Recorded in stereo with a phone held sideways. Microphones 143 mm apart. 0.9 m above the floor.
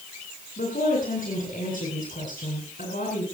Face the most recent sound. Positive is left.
turn(degrees=75)  # may be behind; listen again after turning